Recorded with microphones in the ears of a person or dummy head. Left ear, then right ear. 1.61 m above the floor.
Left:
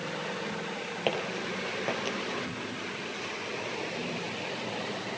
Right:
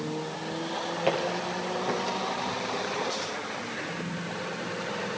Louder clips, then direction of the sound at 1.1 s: Right 3 dB; 25° left (ahead or behind).